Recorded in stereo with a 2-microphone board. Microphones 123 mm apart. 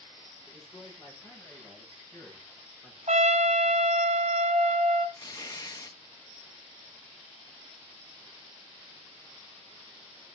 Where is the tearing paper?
30° left (ahead or behind), 0.9 m.